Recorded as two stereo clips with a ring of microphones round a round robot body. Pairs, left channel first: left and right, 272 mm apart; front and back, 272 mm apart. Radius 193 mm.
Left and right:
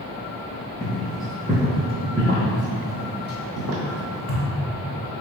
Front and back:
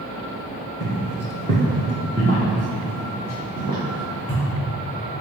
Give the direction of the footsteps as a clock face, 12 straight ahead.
7 o'clock.